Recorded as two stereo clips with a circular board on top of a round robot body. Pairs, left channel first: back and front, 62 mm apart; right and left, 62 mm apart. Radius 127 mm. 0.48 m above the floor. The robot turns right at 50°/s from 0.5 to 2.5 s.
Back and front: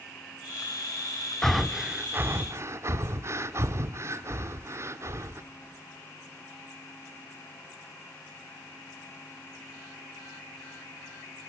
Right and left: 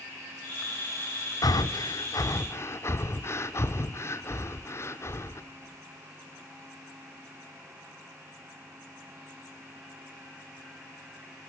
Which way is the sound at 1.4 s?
100° right.